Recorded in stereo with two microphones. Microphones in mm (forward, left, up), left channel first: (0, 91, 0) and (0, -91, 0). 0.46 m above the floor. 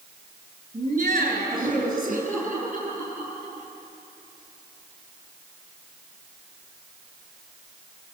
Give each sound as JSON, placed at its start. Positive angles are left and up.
{"t": 0.7, "sound": "laughter", "side_deg": -50, "distance_m": 5.0}